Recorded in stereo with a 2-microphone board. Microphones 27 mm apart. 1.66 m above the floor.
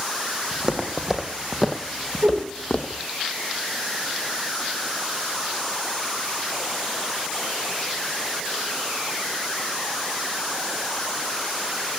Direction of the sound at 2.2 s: 75° right (ahead or behind).